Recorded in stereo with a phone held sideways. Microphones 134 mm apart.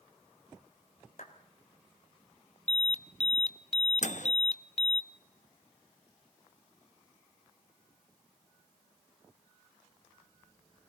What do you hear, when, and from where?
1.2 s a clap: 70° left (ahead or behind), 4 m
2.7 s an alarm: 50° left (ahead or behind), 0.7 m
4.0 s a microwave: 60° left (ahead or behind), 0.8 m